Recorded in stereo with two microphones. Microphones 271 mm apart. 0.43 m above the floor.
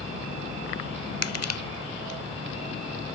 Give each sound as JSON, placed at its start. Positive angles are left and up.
{"t": 1.2, "sound": "crushing", "side_deg": 65}